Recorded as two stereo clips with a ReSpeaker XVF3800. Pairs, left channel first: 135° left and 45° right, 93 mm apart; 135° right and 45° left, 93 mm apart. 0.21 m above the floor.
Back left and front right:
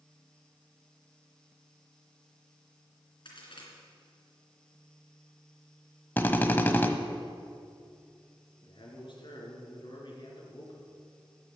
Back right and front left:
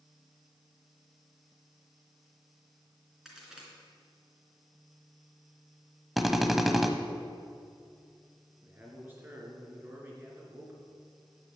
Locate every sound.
3.2 s a crack: 130° left, 3.5 m
6.2 s a drill: 130° left, 1.0 m
8.6 s a man speaking: 110° left, 3.5 m